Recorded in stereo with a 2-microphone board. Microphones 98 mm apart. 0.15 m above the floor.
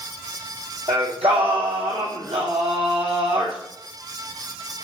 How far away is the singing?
About 2 m.